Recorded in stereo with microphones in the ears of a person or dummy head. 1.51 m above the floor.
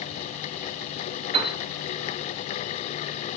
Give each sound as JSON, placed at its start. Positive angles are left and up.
{"t": 1.3, "sound": "a piano", "side_deg": -35, "distance_m": 2.0}